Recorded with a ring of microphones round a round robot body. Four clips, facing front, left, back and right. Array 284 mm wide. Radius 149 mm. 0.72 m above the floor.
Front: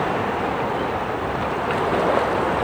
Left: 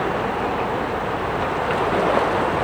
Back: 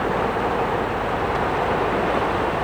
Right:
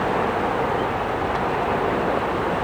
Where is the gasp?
I don't hear a gasp.